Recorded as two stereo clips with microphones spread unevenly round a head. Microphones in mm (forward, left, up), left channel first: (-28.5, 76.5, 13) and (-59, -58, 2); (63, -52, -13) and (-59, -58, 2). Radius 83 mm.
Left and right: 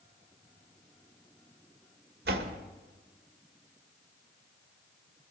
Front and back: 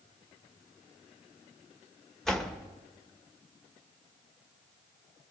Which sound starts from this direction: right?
A door slam, at 2.2 s.